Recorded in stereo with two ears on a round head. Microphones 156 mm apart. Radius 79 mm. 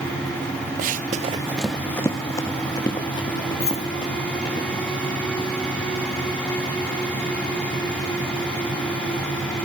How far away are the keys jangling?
About 3.5 m.